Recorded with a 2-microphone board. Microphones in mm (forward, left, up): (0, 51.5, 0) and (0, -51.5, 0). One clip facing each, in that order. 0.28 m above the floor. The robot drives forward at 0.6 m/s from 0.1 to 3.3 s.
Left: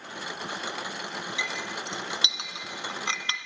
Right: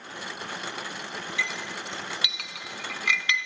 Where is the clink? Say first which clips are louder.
Right 1 dB; 20° left (ahead or behind), 2.5 m; by 3.5 s 35° left (ahead or behind), 1.4 m.